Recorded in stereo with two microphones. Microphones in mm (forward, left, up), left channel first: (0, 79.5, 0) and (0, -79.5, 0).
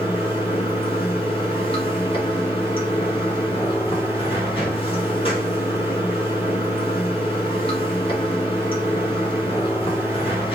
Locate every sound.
0.0 s running water: 35° left (ahead or behind), 1.5 m